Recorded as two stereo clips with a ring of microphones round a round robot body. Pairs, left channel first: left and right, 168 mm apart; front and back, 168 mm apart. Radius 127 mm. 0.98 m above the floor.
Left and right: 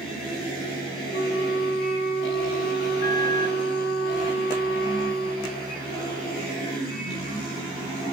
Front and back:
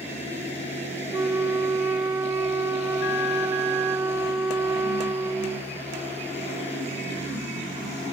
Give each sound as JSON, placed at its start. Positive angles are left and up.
{"t": 1.1, "sound": "a flute", "azimuth_deg": 100, "distance_m": 0.9}